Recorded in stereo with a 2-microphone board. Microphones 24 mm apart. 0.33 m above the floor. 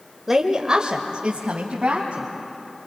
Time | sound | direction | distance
0.3 | a woman speaking | 15° right (ahead or behind) | 0.9 m